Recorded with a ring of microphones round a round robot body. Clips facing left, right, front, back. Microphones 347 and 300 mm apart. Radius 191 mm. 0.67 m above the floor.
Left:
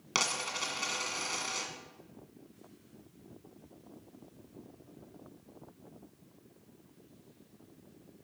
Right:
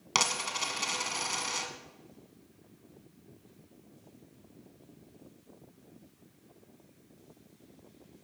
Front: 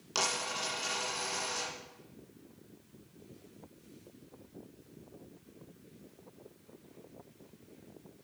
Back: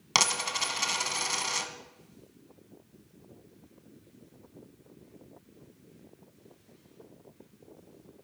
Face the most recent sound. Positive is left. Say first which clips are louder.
# right 2 dB, back 2 dB
turn(degrees=-170)